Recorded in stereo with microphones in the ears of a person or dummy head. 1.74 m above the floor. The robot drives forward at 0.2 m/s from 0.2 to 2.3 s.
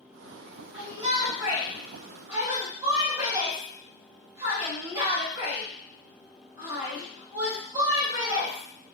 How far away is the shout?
About 1.1 m.